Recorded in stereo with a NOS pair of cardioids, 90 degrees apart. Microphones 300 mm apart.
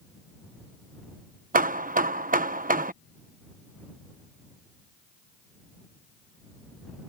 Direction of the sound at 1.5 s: 30° right.